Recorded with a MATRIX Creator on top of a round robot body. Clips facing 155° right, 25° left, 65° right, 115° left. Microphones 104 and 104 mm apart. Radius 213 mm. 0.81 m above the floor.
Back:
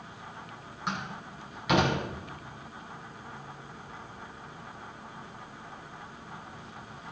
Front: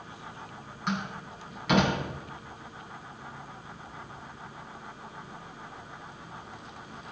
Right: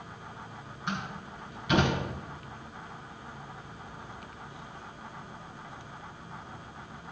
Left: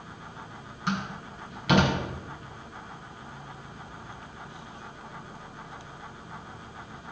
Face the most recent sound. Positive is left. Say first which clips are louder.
# front 3 dB, left 4 dB
turn(degrees=115)